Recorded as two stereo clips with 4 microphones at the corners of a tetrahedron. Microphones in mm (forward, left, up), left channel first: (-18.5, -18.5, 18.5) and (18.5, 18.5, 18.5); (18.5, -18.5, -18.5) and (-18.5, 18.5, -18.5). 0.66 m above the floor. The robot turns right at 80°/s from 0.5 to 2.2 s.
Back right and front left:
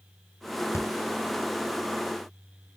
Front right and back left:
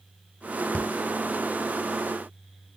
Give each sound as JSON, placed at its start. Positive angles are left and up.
{"t": 0.7, "sound": "breathing", "azimuth_deg": -110, "distance_m": 1.4}